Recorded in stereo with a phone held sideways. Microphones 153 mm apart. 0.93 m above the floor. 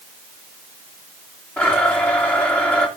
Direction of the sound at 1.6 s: 10° left (ahead or behind).